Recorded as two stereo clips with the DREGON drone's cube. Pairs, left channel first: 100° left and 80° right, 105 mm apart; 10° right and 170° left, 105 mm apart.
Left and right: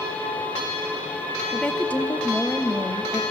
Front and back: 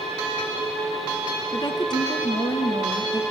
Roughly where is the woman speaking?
Ahead left.